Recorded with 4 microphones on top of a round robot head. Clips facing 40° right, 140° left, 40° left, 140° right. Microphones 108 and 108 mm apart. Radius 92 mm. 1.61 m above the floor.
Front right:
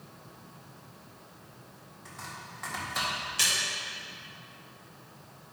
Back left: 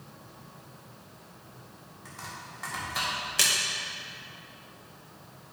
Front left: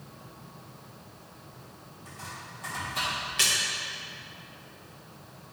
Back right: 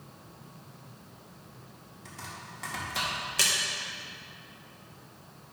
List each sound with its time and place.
2.0 s chopping: 135° right, 2 m
3.4 s a splash: 170° left, 1.1 m